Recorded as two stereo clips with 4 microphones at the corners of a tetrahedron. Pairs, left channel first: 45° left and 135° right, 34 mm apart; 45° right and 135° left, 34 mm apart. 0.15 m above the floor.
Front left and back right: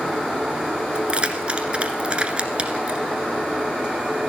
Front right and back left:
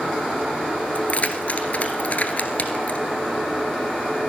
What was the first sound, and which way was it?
Keys jangling, 80° right.